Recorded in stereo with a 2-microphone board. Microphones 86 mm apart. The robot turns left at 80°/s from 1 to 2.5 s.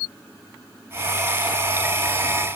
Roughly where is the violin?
No violin in this recording.